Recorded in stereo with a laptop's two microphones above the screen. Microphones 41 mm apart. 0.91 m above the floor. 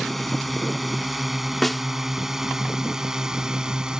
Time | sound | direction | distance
0.0 | a drone | centre (ahead or behind) | ?
1.6 | a snare drum | 5° left (ahead or behind) | ?